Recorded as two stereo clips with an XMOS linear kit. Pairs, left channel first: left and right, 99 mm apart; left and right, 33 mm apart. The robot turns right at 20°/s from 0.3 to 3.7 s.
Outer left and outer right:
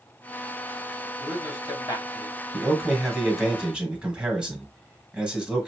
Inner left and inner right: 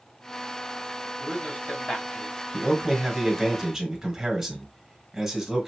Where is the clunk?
No clunk in this recording.